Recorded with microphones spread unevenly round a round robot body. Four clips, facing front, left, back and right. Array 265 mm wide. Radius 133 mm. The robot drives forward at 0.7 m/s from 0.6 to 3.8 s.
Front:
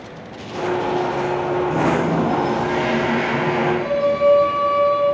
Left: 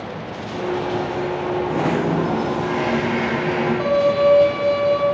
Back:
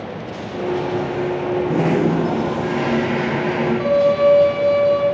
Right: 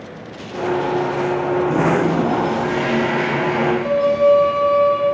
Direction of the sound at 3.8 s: 85° left.